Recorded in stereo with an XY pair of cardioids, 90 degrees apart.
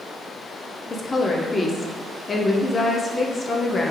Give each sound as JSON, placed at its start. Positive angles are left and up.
{"t": 0.9, "sound": "a woman speaking", "azimuth_deg": 30, "distance_m": 0.7}